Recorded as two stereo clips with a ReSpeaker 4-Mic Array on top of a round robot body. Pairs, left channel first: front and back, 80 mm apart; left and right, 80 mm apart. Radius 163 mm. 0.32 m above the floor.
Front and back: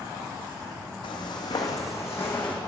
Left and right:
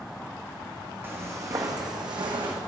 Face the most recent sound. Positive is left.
turn(degrees=-70)